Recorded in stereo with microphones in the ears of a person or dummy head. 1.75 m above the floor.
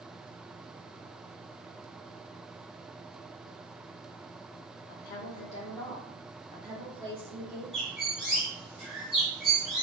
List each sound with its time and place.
4.9 s a woman speaking: 50° left (ahead or behind), 0.8 m; by 7.6 s 35° right (ahead or behind), 1.2 m
7.7 s a bird: 5° right (ahead or behind), 0.9 m